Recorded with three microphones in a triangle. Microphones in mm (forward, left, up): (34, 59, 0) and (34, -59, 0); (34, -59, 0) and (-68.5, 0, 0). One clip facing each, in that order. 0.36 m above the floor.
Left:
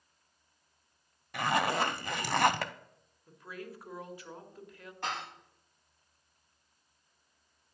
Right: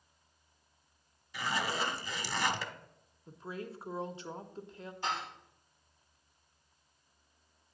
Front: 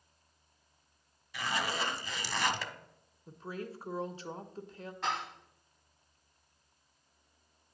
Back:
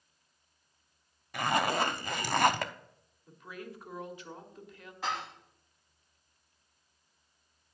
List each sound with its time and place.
1.3 s a zipper: 115° left, 0.5 m
3.3 s a woman speaking: 50° right, 0.9 m
5.0 s dishes clattering: 65° left, 5 m